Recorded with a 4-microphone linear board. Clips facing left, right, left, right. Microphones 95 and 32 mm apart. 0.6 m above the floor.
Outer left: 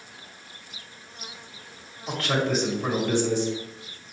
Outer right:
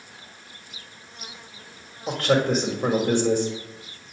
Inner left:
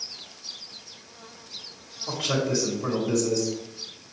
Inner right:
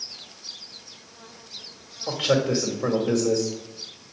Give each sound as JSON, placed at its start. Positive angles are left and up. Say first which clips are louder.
{"t": 2.1, "sound": "a man speaking", "louder": "outer right 4 dB, inner right 4 dB", "side_deg": -55, "distance_m": 1.4}